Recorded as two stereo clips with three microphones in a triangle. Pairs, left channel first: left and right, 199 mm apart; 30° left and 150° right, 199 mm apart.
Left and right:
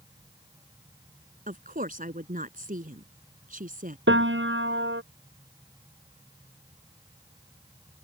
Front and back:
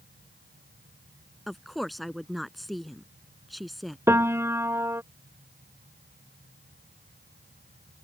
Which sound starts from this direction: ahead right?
A woman speaking, at 1.5 s.